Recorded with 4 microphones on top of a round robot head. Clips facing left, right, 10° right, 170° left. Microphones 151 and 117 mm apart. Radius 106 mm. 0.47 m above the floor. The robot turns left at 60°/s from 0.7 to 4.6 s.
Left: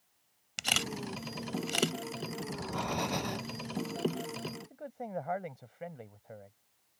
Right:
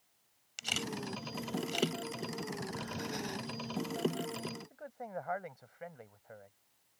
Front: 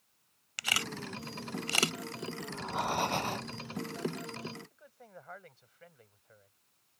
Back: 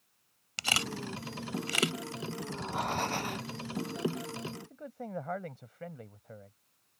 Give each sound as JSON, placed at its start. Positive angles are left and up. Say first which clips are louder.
{"t": 0.6, "sound": "a camera shutter", "louder": "left 2 dB, back 3 dB", "azimuth_deg": 115}
{"t": 2.4, "sound": "breathing", "louder": "left 4 dB, front 1 dB", "azimuth_deg": 100}
{"t": 4.7, "sound": "a man speaking", "louder": "left 4 dB, back 13 dB", "azimuth_deg": 150}